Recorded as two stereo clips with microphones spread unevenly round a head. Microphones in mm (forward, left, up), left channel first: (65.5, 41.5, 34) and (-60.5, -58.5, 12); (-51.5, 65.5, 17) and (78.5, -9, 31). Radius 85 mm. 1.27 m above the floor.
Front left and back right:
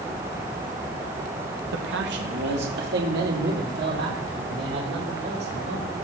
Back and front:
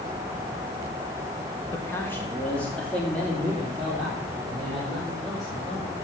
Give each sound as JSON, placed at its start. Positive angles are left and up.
{"t": 1.7, "sound": "a man speaking", "azimuth_deg": -135, "distance_m": 1.5}